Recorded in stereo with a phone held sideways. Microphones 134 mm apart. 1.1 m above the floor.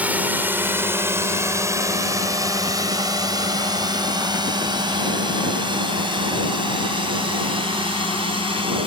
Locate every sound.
0.0 s a drone: 10° right (ahead or behind); by 8.9 s 40° right (ahead or behind)